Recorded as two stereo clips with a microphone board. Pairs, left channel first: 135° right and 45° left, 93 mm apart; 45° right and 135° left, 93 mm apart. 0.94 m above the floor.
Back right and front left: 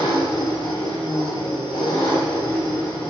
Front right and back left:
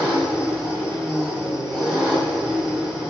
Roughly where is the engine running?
Behind right.